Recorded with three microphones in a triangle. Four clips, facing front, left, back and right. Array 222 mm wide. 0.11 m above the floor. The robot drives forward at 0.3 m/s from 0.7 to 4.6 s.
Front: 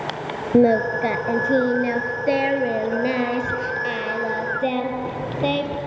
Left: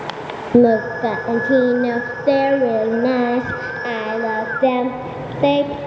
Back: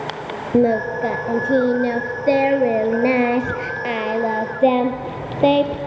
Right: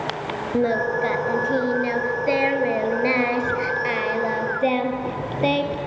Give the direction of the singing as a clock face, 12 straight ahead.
9 o'clock.